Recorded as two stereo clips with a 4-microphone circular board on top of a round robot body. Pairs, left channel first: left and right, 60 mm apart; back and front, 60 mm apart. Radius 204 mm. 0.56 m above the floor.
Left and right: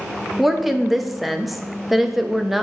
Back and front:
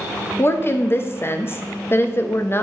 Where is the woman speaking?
175° right, 1.3 m.